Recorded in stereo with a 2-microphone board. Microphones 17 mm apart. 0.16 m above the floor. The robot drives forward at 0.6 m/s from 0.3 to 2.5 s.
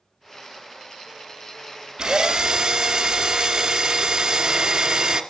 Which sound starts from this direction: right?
A drill, at 2.0 s.